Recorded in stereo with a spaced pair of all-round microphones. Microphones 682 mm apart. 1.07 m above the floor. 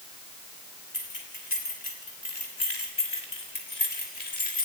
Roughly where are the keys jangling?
Left.